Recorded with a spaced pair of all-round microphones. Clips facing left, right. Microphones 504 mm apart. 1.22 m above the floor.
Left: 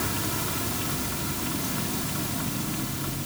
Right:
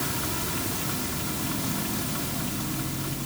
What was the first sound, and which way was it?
Only background noise.